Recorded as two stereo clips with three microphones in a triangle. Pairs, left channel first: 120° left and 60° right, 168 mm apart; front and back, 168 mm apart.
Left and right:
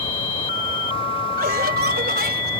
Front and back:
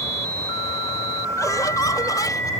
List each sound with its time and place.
1.4 s laughter: 70° right